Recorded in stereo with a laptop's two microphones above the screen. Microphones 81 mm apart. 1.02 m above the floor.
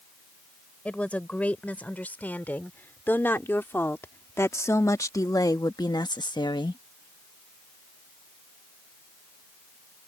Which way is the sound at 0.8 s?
15° left (ahead or behind).